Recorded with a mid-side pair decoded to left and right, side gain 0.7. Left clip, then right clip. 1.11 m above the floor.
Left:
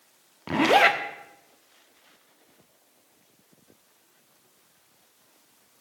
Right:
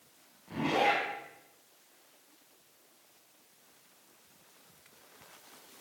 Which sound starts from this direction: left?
A zipper, at 0.5 s.